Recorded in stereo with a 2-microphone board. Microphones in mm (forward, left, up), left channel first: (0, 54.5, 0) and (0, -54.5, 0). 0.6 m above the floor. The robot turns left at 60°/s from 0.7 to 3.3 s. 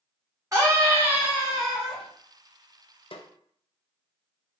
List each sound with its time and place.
0.5 s a scream: 110° right, 1.1 m; by 2.0 s 170° left, 1.1 m
3.1 s a snare drum: 55° left (ahead or behind), 0.5 m